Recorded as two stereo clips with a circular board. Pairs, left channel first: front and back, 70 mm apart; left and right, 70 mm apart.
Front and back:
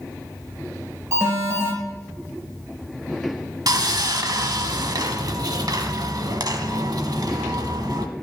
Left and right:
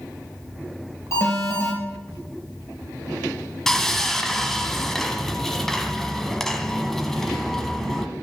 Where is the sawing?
175° left, 1.1 m.